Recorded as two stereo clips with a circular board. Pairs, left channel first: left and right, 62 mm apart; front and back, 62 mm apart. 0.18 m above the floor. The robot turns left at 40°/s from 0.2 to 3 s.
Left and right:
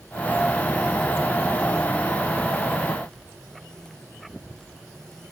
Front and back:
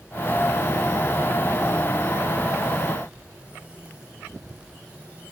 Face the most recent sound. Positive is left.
No sound to turn to.